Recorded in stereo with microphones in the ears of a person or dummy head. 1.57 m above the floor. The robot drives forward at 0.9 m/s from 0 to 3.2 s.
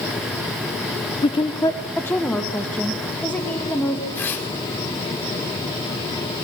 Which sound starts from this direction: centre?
Tearing paper, at 4.2 s.